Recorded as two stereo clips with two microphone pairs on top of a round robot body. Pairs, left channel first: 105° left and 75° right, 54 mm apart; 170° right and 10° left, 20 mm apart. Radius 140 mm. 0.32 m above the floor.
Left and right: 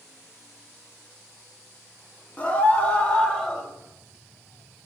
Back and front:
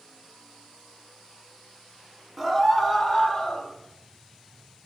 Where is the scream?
110° left, 1.1 m; by 3.7 s 160° left, 1.2 m.